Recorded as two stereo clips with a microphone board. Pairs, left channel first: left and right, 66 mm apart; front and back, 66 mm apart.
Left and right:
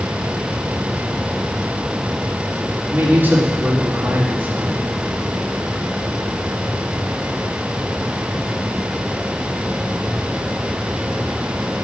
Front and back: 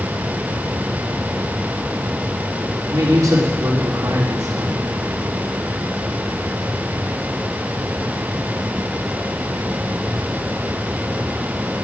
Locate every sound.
2.9 s a man speaking: 150° right, 3 m